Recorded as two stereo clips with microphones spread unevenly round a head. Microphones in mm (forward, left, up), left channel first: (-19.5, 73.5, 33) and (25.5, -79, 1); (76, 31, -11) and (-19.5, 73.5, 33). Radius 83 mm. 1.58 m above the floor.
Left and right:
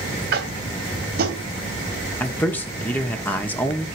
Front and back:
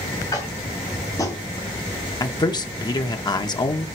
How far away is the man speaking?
About 2 m.